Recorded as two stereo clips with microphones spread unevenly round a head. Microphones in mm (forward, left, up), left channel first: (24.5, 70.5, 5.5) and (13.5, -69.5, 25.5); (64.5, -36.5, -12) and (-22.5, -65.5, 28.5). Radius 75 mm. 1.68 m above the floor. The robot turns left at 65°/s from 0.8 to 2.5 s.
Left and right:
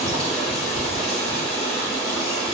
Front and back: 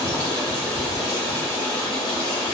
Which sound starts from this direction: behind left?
Running water, at 0.0 s.